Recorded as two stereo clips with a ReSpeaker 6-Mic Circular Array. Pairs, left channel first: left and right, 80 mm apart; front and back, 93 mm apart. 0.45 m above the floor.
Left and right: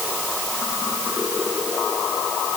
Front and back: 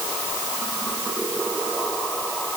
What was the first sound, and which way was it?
Only background noise.